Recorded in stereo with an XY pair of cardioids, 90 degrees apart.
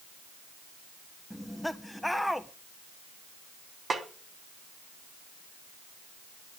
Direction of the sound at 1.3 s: 5° left.